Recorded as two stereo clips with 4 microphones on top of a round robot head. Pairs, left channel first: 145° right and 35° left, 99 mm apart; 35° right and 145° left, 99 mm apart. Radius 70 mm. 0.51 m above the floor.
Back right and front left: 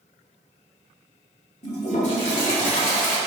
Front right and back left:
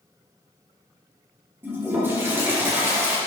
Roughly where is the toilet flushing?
Behind right.